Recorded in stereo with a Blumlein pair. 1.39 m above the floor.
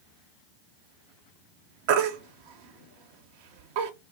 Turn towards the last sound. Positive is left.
turn(degrees=-45)